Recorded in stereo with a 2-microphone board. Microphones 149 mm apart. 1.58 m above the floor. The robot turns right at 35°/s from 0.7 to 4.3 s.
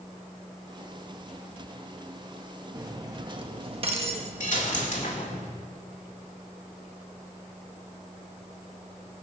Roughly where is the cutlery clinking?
Behind right.